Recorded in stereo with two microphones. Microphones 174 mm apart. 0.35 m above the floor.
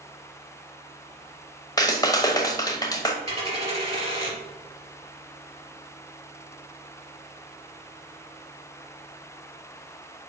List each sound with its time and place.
1.8 s a clap: 20° left (ahead or behind), 1.0 m
3.2 s a dropped coin: 35° right (ahead or behind), 3 m